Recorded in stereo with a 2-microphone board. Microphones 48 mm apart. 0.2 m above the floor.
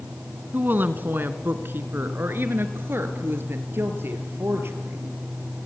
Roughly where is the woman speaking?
Right.